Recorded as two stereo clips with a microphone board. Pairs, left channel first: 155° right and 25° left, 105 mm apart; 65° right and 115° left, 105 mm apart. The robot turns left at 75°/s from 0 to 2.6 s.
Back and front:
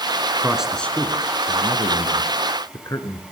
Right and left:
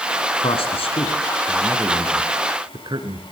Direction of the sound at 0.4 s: 45° right.